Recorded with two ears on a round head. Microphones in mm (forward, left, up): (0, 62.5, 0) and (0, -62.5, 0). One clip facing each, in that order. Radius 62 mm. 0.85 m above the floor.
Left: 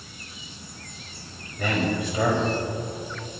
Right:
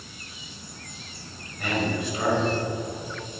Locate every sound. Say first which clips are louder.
1.6 s a man speaking: left 2 dB; 75° left (ahead or behind), 5 m